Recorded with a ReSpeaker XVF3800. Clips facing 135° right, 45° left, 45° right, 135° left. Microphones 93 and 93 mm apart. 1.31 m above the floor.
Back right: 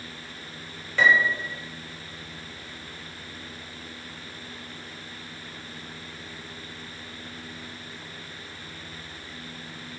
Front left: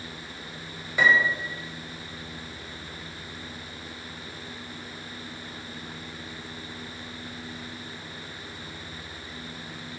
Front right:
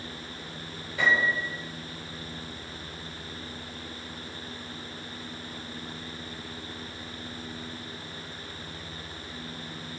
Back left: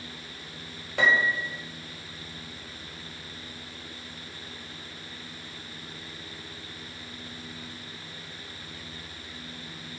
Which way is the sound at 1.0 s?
125° left.